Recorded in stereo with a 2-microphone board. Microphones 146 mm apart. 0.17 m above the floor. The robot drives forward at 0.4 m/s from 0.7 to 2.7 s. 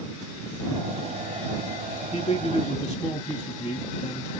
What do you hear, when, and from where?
2.1 s a man speaking: 50° left (ahead or behind), 1.8 m